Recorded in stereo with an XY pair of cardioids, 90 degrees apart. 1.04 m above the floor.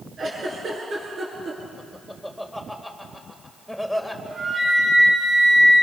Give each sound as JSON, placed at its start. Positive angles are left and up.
{"t": 0.2, "sound": "a giggle", "azimuth_deg": -50, "distance_m": 8.0}
{"t": 1.8, "sound": "laughter", "azimuth_deg": -5, "distance_m": 4.5}
{"t": 4.3, "sound": "a flute", "azimuth_deg": -45, "distance_m": 8.5}